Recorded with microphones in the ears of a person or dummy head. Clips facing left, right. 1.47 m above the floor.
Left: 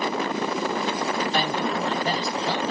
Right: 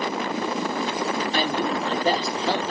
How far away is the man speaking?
About 2 m.